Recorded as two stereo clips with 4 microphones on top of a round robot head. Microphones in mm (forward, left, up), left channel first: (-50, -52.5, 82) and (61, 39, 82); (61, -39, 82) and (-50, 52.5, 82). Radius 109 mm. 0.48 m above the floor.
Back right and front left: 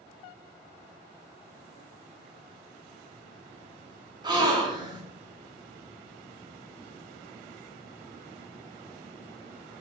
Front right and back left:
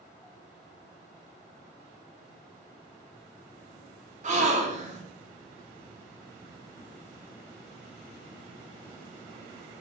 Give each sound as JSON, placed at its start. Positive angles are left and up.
{"t": 4.2, "sound": "a gasp", "azimuth_deg": 100, "distance_m": 0.7}